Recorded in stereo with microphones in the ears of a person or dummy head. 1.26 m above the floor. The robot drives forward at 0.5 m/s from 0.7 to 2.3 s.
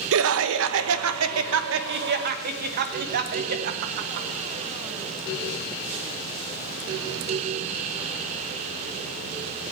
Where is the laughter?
75° right (ahead or behind), 0.8 m; by 4.3 s 50° right (ahead or behind), 1.0 m.